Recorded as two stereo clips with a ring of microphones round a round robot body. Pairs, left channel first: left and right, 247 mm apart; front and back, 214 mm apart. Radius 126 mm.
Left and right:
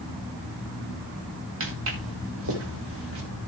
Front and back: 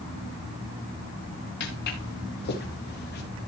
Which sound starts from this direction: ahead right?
Footsteps, at 1.6 s.